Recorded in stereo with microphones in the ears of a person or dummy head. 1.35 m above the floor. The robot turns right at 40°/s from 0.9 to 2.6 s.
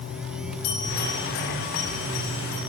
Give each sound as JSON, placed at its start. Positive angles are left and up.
{"t": 0.6, "sound": "a bell", "side_deg": 45, "distance_m": 7.5}